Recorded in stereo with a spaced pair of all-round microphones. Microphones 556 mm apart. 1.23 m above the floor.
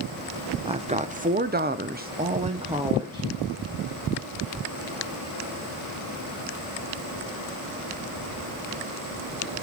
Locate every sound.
0.7 s a woman speaking: 10° right (ahead or behind), 0.9 m; by 3.3 s 5° right (ahead or behind), 1.2 m